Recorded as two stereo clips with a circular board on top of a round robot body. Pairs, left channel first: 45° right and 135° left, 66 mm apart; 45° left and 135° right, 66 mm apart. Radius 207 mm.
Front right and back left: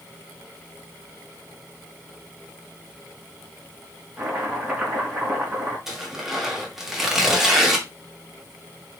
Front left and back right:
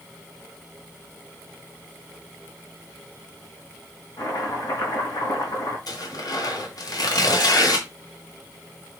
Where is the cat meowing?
No cat meowing in this recording.